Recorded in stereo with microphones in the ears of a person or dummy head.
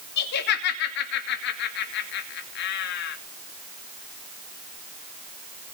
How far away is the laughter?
About 2.5 m.